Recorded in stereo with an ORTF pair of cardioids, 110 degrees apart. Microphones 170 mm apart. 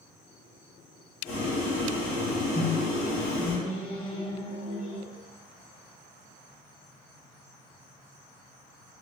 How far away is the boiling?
About 1.1 m.